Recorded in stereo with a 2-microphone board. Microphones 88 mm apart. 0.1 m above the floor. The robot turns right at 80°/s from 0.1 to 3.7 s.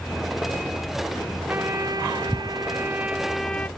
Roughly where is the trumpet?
Behind right.